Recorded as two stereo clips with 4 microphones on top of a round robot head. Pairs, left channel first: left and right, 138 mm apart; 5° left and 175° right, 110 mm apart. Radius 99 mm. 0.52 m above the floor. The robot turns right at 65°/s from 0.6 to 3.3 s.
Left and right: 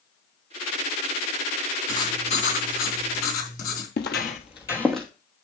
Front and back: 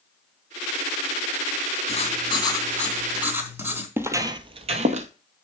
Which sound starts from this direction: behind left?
Footsteps, at 4.0 s.